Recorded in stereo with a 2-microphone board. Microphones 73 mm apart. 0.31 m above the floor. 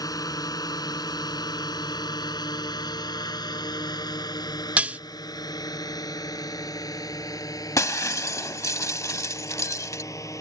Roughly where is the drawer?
I don't hear a drawer.